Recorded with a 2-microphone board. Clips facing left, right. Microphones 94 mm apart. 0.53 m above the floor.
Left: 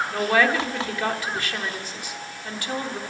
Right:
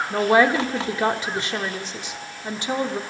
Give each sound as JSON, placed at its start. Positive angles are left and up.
{"t": 0.1, "sound": "a woman speaking", "side_deg": -25, "distance_m": 1.2}